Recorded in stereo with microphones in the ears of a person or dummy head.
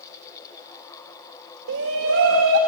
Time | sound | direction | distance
1.7 | a shout | 65° right (ahead or behind) | 1.8 m